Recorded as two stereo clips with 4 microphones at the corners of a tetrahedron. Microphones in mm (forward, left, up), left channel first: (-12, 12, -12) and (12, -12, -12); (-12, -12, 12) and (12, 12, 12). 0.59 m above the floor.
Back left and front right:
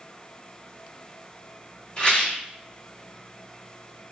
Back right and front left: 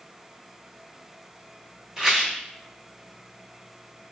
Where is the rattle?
115° left, 1.1 m.